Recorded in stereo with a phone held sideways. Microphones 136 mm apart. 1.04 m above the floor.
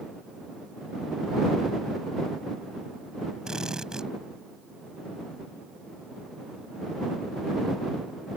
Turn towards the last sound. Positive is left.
turn(degrees=-5)  # may be behind; listen again after turning